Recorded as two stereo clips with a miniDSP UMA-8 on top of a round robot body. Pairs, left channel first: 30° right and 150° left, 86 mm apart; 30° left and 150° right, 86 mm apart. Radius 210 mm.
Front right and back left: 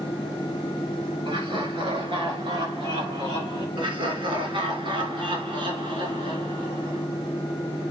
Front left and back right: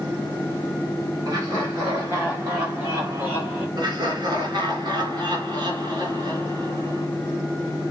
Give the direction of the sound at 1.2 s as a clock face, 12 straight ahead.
7 o'clock.